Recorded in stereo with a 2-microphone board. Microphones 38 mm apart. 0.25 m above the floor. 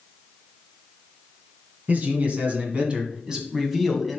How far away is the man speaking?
About 2.5 m.